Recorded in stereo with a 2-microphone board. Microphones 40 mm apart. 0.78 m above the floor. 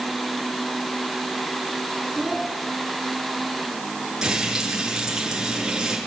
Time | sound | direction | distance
2.1 | a child speaking | centre (ahead or behind) | 5.5 m
4.2 | frying | 20° right (ahead or behind) | 7 m